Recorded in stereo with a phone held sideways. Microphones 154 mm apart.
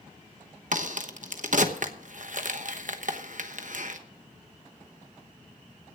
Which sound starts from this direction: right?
A crack, at 0.7 s.